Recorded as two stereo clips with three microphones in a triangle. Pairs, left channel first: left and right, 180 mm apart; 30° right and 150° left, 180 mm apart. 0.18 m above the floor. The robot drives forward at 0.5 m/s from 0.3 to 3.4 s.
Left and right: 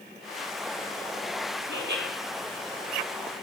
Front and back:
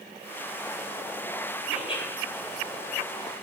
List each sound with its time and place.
1.7 s laughter: 90° right, 5 m